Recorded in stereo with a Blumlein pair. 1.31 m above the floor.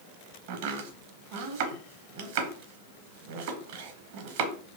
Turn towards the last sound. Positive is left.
turn(degrees=-50)